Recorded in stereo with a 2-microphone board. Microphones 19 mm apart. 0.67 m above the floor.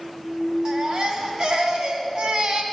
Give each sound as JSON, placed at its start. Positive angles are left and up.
{"t": 0.7, "sound": "a baby crying", "side_deg": -60, "distance_m": 1.6}